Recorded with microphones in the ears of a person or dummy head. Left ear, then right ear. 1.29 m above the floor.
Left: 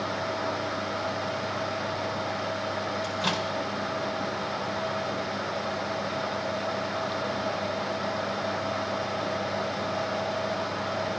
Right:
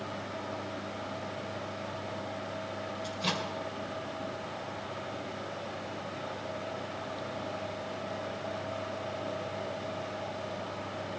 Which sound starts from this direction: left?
A microwave, at 3.0 s.